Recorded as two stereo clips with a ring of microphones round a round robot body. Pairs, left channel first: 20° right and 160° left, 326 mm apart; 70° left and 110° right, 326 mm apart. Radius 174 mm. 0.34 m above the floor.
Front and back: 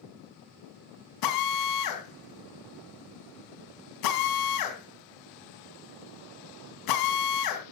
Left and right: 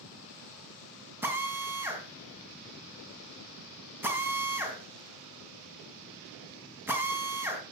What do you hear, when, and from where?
1.2 s a drill: 30° right, 3 m